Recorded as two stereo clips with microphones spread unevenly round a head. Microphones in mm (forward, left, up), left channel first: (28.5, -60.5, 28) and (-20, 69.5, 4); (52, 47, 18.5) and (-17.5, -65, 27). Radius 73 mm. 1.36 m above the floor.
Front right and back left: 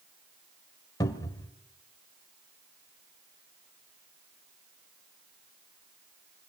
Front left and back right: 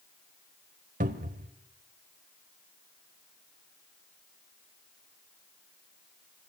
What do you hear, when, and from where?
1.0 s a cupboard door: 125° right, 1.7 m